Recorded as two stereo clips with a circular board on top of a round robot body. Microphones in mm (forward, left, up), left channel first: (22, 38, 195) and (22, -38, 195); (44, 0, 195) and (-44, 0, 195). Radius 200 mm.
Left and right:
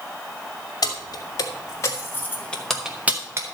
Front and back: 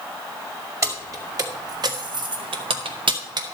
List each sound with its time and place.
0.8 s keys jangling: 130° left, 2 m; by 3.5 s 135° right, 1.0 m